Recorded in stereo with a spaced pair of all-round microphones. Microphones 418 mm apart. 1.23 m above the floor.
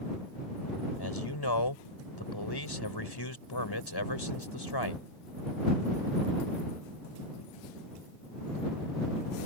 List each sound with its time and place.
1.0 s a man speaking: 70° left (ahead or behind)